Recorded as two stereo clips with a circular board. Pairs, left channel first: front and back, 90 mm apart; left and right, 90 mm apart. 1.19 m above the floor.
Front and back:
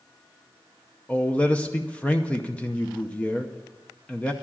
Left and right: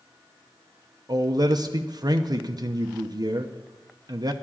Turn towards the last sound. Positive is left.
turn(degrees=-70)